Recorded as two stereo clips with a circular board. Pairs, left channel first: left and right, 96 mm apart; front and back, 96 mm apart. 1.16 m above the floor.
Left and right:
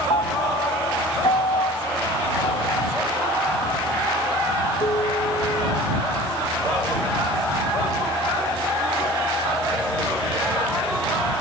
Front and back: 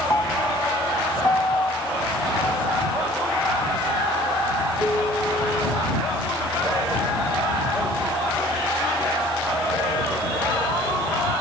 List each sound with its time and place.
0.1 s a piano: 65° left